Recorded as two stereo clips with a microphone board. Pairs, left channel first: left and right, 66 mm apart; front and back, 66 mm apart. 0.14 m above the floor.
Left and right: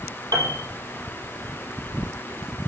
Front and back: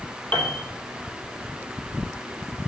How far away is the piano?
About 3.5 m.